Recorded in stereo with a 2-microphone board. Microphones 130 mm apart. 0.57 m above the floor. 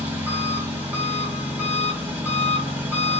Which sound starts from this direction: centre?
An engine running, at 0.0 s.